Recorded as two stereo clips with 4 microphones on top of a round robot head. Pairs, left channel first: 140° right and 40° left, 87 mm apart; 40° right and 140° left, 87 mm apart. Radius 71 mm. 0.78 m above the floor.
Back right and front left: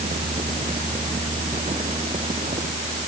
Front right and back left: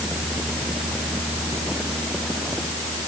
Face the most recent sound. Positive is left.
No sound to turn to.